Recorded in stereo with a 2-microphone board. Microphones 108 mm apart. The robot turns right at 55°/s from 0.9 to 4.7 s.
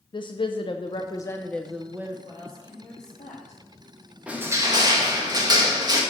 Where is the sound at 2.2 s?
35° left, 3.5 m; by 3.6 s 110° left, 3.5 m.